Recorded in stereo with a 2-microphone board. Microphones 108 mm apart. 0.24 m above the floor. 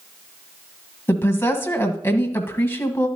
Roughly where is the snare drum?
No snare drum in this recording.